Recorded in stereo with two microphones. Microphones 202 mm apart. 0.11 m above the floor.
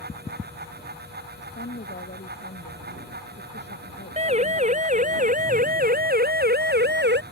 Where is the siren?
30° right (ahead or behind); by 7.2 s 55° right (ahead or behind).